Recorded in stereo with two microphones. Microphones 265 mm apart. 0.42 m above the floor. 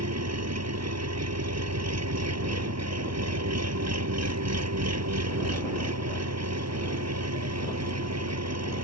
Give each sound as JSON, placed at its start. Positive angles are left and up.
{"t": 0.0, "sound": "an engine running", "side_deg": -75}